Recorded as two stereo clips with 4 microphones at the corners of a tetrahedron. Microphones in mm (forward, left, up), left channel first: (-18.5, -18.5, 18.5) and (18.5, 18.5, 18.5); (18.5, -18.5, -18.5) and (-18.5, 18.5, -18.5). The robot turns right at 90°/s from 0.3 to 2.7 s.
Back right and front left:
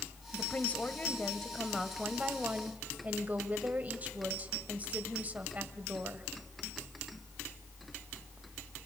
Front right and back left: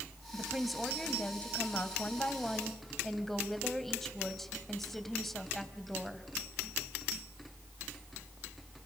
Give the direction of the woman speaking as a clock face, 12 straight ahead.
6 o'clock.